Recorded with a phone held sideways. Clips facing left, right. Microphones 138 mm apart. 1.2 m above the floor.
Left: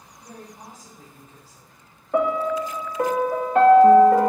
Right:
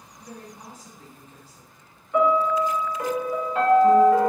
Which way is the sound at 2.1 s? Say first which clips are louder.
Right 1 dB; 50° left (ahead or behind).